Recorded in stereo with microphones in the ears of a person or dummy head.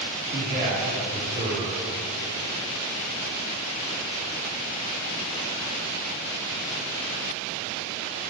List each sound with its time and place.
0.3 s a man speaking: 40° right (ahead or behind), 3 m